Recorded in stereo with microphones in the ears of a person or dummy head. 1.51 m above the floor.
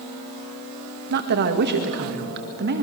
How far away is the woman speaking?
About 1.8 m.